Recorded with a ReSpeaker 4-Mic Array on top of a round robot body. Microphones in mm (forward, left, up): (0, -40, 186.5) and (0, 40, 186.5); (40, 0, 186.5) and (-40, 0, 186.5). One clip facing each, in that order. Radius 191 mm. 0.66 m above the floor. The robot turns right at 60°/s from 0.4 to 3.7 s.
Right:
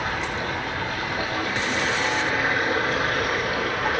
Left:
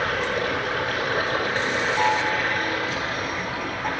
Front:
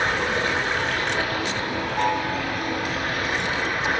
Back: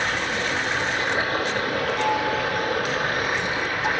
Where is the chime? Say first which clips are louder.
Left 2 dB, front 1 dB; 65° left, 4.5 m; by 3.9 s 165° left, 4.5 m.